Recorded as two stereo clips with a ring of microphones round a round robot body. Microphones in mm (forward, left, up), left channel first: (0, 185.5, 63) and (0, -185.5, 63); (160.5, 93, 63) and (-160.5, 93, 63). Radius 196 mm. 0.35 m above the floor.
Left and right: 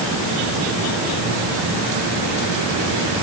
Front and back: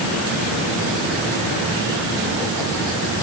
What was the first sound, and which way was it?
Only background noise.